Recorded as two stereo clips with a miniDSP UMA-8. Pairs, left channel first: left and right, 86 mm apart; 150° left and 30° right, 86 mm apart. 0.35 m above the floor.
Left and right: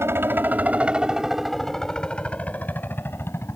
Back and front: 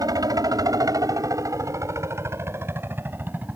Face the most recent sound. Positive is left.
turn(degrees=35)